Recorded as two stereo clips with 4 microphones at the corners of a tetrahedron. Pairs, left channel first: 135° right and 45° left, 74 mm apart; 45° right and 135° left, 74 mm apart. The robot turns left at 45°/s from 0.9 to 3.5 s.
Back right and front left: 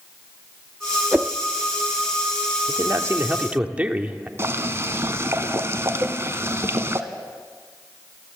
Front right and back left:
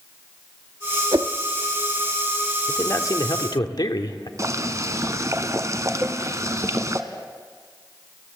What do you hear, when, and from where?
1.1 s a whoosh: 115° left, 0.5 m; by 1.3 s 105° left, 0.5 m
2.7 s a man speaking: 10° left, 1.6 m; by 4.3 s 25° right, 1.6 m
4.4 s boiling: 95° left, 1.2 m
6.0 s a cowbell: 90° left, 0.8 m